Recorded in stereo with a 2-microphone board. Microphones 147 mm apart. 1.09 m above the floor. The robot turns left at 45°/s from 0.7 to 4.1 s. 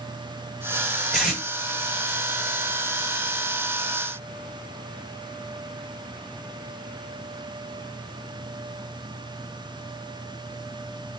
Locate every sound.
1.1 s tape being pulled: centre (ahead or behind), 2.5 m; by 1.4 s 10° right (ahead or behind), 2.5 m